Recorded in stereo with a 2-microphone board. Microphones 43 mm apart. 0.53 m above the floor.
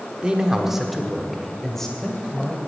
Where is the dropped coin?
I don't hear a dropped coin.